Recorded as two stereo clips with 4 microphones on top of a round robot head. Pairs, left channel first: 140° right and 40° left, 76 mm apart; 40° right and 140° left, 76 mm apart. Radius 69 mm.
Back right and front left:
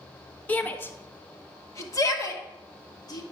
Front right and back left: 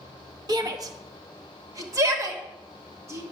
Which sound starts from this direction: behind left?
A shout, at 0.5 s.